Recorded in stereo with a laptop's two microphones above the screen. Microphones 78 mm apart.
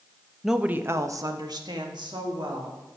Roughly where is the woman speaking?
Centre.